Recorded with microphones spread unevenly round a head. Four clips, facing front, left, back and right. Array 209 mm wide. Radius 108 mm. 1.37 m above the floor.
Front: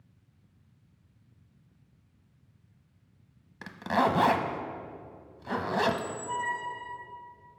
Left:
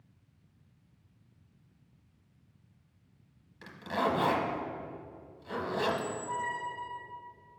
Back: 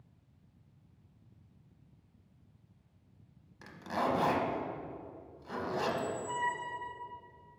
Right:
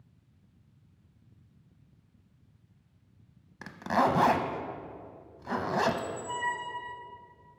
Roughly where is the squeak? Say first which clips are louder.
Right 2 dB, front 4 dB; behind right.